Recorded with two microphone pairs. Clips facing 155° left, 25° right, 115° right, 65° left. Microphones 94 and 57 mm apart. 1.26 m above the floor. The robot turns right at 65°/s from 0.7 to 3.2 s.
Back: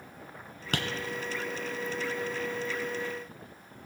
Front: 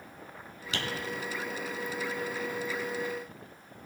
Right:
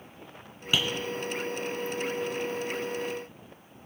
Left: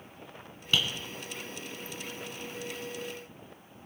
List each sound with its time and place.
0.7 s tapping: 170° left, 1.9 m; by 0.8 s 175° left, 1.9 m